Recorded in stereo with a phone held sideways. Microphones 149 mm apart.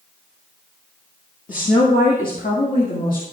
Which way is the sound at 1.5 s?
65° left (ahead or behind).